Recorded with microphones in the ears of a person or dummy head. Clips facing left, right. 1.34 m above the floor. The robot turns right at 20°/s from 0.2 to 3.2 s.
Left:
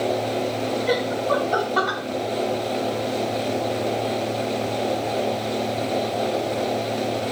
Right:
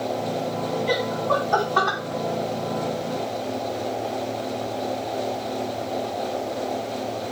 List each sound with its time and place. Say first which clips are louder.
0.9 s laughter: left 2 dB; 25° left (ahead or behind), 1.5 m; by 2.0 s 5° left (ahead or behind), 1.5 m